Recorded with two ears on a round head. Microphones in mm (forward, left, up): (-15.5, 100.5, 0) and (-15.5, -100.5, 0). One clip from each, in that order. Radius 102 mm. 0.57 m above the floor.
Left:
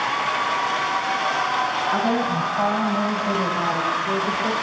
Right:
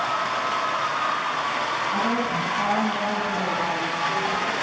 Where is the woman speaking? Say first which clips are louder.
Left 2 dB; 40° left (ahead or behind), 3.5 m; by 4.5 s 60° left (ahead or behind), 2.5 m.